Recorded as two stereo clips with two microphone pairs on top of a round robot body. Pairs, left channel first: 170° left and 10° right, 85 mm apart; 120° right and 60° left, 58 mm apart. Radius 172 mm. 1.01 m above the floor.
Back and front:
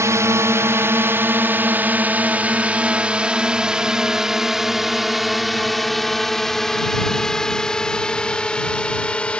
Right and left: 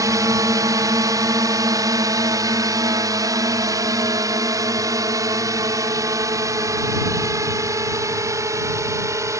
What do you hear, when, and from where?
0.0 s a drone: 45° left; by 9.4 s 90° left